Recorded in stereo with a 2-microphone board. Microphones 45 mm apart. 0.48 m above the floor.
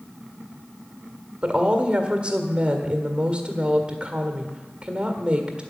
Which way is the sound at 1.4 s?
25° right (ahead or behind).